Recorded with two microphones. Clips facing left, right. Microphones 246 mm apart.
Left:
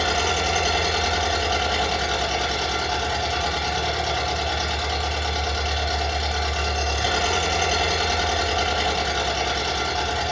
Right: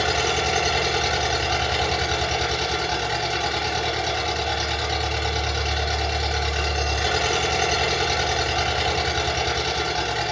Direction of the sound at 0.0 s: 20° right (ahead or behind).